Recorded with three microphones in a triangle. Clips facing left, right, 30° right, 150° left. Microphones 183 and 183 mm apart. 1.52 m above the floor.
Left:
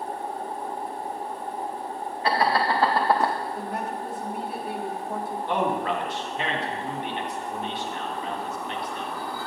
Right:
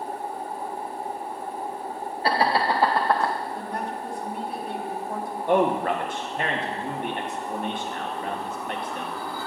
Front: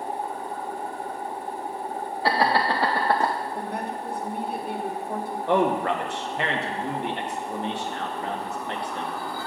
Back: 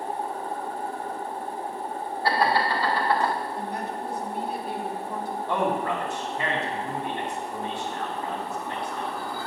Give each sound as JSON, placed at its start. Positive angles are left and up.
{"t": 2.2, "sound": "laughter", "azimuth_deg": -35, "distance_m": 0.7}
{"t": 3.5, "sound": "a woman speaking", "azimuth_deg": 5, "distance_m": 1.1}
{"t": 5.5, "sound": "a man speaking", "azimuth_deg": -45, "distance_m": 1.2}